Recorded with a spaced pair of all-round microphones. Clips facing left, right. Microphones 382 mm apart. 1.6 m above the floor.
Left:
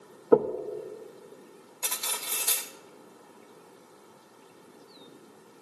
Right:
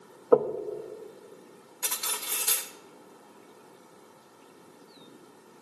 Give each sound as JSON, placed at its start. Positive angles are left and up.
{"t": 0.3, "sound": "knocking", "side_deg": 35, "distance_m": 0.6}
{"t": 1.8, "sound": "cutlery clinking", "side_deg": -25, "distance_m": 0.9}